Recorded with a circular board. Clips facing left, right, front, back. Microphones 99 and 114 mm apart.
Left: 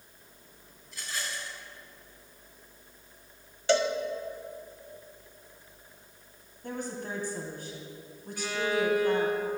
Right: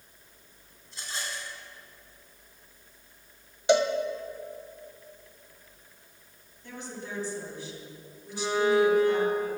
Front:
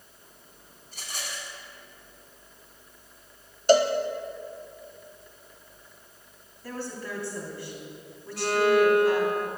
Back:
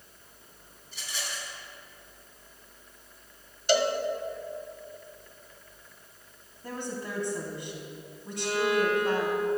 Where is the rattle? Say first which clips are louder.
Even, even; 35° right, 2.5 m.